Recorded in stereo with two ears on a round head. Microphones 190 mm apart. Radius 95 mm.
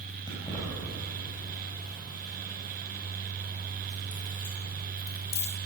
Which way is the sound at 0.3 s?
20° left (ahead or behind).